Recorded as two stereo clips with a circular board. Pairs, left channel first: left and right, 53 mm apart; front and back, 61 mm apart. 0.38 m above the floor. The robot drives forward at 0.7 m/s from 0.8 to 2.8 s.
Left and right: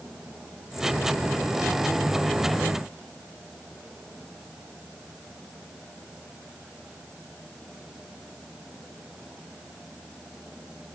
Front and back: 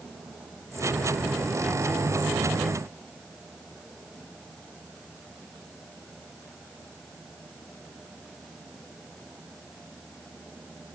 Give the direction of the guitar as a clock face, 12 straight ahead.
I don't hear a guitar.